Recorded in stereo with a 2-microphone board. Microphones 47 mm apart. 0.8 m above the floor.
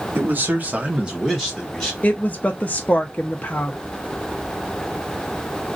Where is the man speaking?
45° right (ahead or behind), 1.2 m; by 1.9 s 10° left (ahead or behind), 1.4 m.